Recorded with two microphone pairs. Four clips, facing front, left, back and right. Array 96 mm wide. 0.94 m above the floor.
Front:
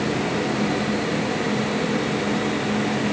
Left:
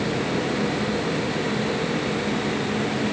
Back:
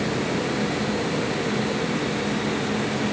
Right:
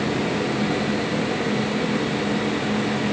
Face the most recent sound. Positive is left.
No sound to turn to.